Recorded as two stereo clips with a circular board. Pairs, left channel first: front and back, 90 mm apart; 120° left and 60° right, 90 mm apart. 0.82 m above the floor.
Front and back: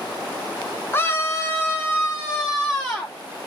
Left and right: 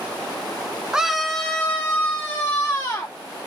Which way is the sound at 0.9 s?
10° left.